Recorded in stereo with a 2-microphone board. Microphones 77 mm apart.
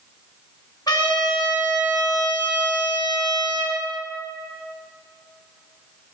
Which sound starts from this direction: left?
A trumpet, at 0.9 s.